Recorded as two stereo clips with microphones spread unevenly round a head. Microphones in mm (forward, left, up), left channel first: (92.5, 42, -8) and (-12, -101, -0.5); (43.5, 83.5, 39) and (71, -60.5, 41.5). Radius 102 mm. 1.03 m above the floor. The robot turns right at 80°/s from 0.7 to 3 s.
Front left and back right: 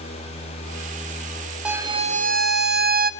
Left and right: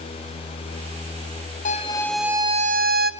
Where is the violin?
150° left, 0.6 m; by 3.1 s 100° right, 0.6 m.